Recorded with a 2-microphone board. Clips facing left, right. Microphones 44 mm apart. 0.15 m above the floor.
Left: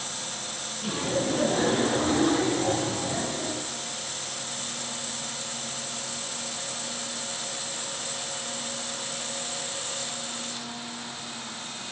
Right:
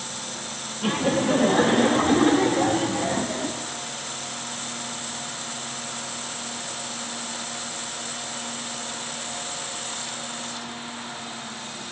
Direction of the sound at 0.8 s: 55° right (ahead or behind).